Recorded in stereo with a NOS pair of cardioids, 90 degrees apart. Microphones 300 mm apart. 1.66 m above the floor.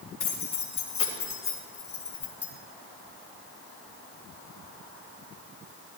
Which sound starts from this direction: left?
Keys jangling, at 0.2 s.